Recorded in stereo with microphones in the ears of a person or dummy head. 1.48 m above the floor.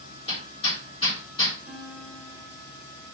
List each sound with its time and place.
0.3 s hammering: 35° left (ahead or behind), 2.5 m
1.7 s a guitar: 5° left (ahead or behind), 2.0 m